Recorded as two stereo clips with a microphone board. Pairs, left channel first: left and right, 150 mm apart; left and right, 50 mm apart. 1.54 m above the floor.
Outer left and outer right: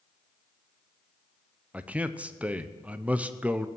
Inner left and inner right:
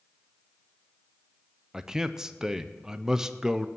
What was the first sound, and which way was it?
A man speaking, 10° right (ahead or behind).